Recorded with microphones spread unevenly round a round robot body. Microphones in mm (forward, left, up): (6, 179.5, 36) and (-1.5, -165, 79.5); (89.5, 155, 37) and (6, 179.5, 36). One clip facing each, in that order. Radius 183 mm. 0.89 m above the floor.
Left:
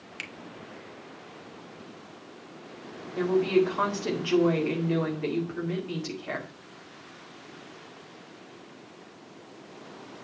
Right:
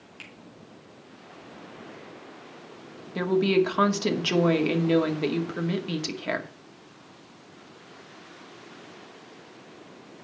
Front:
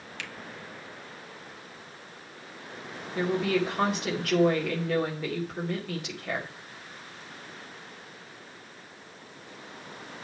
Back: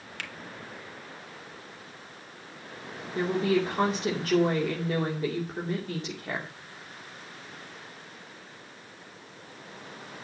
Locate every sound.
0.2 s a finger snap: 125° left, 1.7 m
3.1 s a woman speaking: 120° right, 2.5 m